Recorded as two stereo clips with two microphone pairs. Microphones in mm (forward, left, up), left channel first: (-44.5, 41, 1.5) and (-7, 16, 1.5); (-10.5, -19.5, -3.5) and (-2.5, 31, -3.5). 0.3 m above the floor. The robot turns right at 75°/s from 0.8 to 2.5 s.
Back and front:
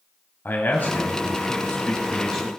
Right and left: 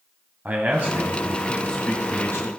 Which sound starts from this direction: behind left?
A man speaking, at 0.5 s.